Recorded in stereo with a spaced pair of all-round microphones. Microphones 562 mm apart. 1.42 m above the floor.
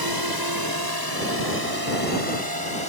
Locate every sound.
0.0 s a drone: 40° right (ahead or behind)